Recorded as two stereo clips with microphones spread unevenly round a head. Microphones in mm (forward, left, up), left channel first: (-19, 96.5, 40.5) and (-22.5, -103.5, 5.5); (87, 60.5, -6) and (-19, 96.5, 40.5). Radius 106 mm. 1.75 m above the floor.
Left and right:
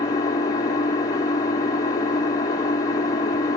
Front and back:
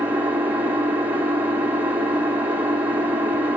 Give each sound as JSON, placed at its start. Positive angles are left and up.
{"t": 0.0, "sound": "an engine running", "azimuth_deg": 135, "distance_m": 0.8}